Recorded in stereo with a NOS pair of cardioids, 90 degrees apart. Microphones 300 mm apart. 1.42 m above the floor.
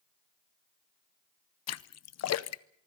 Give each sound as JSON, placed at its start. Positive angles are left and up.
{"t": 1.7, "sound": "a splash", "azimuth_deg": 55, "distance_m": 0.8}